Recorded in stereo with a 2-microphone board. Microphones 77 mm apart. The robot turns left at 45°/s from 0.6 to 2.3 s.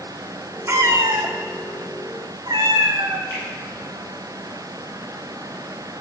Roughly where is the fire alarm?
I don't hear a fire alarm.